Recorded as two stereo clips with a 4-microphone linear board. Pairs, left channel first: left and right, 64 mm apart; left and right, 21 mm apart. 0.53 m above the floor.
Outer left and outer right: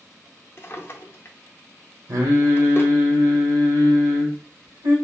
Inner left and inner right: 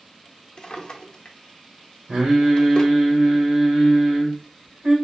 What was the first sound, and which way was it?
A drawer, 35° left (ahead or behind).